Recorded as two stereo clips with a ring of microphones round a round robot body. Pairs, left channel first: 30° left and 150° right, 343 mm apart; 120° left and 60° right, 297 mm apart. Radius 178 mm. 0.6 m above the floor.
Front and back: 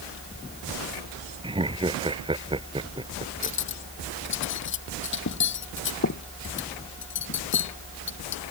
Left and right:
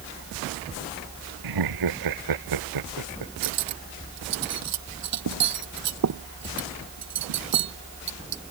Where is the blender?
No blender in this recording.